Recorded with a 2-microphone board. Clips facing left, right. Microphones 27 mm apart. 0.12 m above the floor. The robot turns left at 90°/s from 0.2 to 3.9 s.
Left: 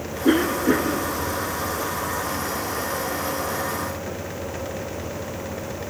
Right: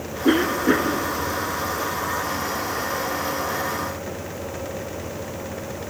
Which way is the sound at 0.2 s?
10° right (ahead or behind).